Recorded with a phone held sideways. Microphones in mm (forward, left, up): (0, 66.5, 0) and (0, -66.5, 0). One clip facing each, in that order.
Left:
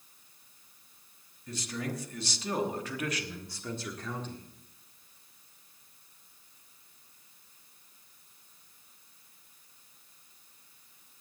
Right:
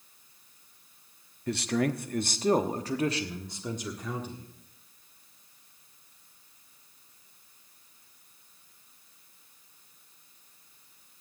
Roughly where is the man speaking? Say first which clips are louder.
Right 9 dB; right.